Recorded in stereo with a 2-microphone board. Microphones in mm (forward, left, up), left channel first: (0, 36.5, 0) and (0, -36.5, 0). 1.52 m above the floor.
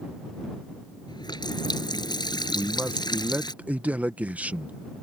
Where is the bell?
No bell in this recording.